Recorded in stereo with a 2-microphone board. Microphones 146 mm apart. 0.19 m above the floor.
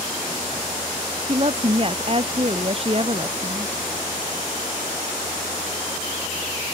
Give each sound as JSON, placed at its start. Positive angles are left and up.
{"t": 1.3, "sound": "a woman speaking", "side_deg": -40}